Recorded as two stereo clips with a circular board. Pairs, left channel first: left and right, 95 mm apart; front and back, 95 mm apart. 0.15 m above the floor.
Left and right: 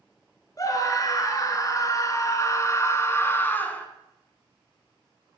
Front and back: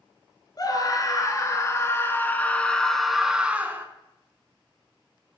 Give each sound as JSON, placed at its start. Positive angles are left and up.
{"t": 0.6, "sound": "a scream", "azimuth_deg": 40, "distance_m": 2.5}